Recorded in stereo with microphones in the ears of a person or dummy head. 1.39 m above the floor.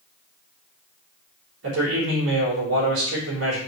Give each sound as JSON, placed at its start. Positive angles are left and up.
{"t": 1.6, "sound": "a man speaking", "side_deg": -85, "distance_m": 3.5}